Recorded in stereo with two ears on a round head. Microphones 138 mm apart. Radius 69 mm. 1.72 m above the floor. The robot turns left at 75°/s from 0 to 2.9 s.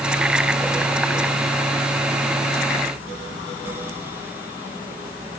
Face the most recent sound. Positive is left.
No sound to turn to.